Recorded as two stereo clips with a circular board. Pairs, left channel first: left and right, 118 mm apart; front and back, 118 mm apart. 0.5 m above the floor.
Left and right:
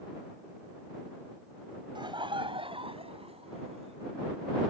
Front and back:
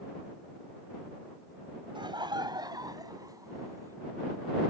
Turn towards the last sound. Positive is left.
turn(degrees=-120)